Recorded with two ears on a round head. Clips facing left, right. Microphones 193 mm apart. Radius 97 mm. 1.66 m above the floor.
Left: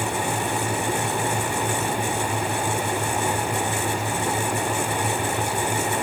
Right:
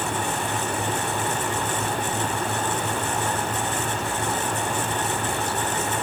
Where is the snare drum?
No snare drum in this recording.